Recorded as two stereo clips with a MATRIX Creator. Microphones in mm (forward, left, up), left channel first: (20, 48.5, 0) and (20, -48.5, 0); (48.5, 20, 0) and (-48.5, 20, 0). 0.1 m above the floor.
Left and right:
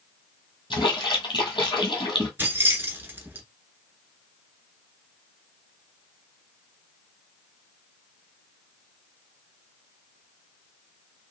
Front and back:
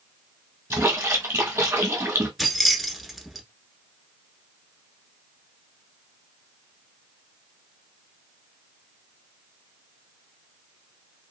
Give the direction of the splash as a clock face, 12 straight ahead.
8 o'clock.